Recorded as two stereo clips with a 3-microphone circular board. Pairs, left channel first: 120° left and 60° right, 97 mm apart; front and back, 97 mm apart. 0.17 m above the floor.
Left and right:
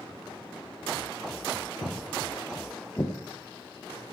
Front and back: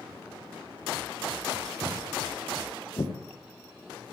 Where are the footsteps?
75° left, 1.8 m; by 3.1 s 45° left, 2.5 m.